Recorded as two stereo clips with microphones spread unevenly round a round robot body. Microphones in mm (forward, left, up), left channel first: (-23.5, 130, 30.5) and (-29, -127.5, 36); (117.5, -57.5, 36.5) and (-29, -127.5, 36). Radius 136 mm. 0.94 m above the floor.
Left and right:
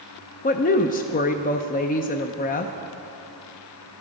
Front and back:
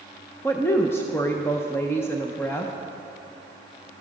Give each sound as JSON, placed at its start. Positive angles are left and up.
{"t": 0.4, "sound": "a woman speaking", "azimuth_deg": 90, "distance_m": 0.6}